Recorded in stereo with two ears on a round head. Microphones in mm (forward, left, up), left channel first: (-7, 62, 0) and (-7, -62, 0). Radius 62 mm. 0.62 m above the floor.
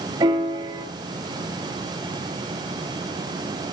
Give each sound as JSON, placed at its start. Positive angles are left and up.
{"t": 0.2, "sound": "a piano", "side_deg": -30, "distance_m": 4.0}